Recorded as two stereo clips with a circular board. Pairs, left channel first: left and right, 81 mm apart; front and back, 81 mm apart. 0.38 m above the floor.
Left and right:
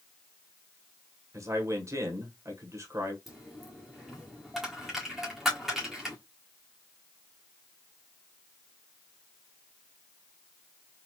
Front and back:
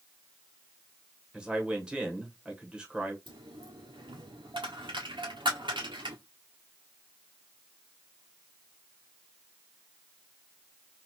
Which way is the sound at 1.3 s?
105° right.